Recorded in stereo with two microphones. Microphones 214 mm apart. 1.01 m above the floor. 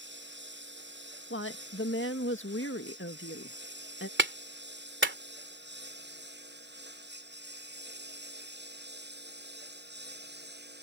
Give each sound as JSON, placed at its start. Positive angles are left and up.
{"t": 0.0, "sound": "a lawn mower", "side_deg": -60}
{"t": 1.3, "sound": "a woman speaking", "side_deg": 70}
{"t": 4.2, "sound": "a clap", "side_deg": -60}